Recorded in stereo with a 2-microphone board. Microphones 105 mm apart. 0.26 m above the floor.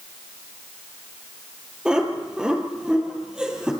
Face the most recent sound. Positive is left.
turn(degrees=-5)  # may be behind; listen again after turning